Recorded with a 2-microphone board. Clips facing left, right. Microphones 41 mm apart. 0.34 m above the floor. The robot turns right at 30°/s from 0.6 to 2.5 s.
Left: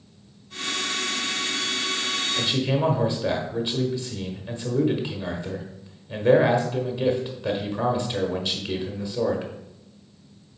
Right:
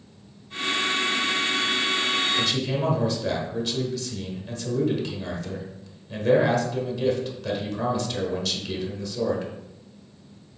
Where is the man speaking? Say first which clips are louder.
Left 1 dB; 20° left (ahead or behind), 1.1 m.